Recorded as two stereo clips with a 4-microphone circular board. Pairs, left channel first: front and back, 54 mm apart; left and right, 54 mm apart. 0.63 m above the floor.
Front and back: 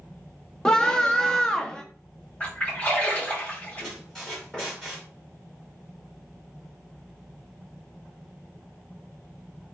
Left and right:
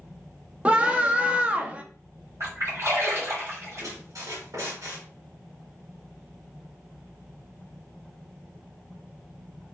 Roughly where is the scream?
Ahead right.